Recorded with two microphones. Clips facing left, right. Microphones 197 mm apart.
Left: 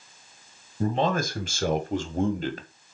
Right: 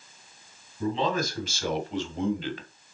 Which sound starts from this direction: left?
A man speaking, at 0.8 s.